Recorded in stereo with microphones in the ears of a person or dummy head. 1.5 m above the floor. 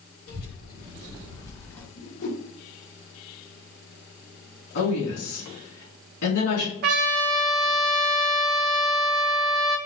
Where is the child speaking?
55° left (ahead or behind), 1.6 m; by 1.9 s 10° left (ahead or behind), 1.0 m.